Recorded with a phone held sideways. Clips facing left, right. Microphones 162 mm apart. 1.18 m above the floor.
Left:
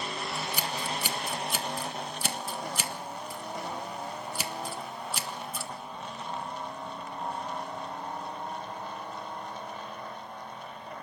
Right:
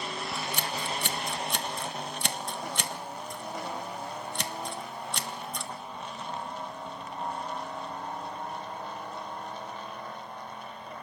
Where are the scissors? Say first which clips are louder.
Even; 5° left (ahead or behind), 1.0 m.